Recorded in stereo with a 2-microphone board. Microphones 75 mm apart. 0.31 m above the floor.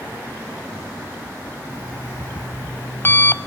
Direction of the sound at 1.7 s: 30° left (ahead or behind).